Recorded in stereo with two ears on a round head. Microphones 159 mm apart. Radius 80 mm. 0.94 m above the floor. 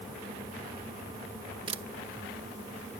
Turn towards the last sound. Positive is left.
turn(degrees=-30)  # may be behind; listen again after turning